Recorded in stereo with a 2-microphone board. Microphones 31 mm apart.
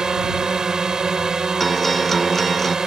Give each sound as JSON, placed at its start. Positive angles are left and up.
{"t": 0.0, "sound": "a drone", "side_deg": -20}
{"t": 1.6, "sound": "a guitar", "side_deg": 10}